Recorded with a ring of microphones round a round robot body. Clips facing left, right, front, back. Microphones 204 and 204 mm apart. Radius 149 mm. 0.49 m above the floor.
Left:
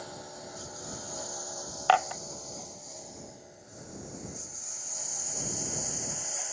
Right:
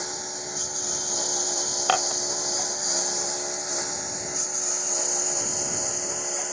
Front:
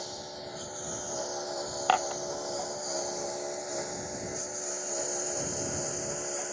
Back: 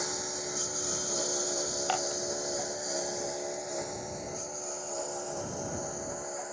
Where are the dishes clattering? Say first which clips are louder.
Left 1 dB, front 7 dB; 45° right.